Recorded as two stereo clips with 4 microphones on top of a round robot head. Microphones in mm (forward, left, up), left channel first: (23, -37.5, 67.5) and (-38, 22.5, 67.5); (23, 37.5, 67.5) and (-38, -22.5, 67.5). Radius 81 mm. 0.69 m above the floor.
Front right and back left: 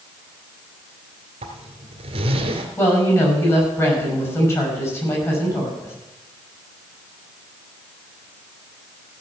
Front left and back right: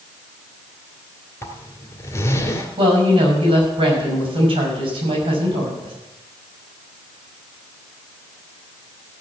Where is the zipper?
110° left, 2.0 m.